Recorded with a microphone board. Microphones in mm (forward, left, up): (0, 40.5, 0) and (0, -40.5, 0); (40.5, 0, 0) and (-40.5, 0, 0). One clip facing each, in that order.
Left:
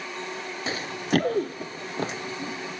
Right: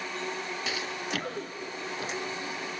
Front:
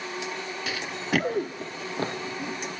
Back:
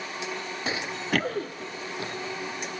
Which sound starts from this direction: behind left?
Running footsteps, at 0.7 s.